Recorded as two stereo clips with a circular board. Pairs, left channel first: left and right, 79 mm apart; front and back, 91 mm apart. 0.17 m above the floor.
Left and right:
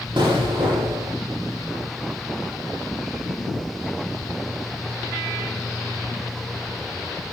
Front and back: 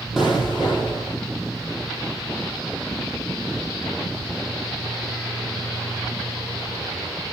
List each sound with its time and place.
0.2 s an explosion: 95° right, 6.5 m